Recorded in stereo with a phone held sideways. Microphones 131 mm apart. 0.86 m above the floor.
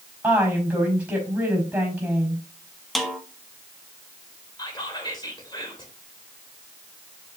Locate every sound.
0.2 s a woman speaking: 10° right (ahead or behind), 5 m
3.0 s a snare drum: centre (ahead or behind), 1.3 m
4.6 s whispering: 35° left (ahead or behind), 2.5 m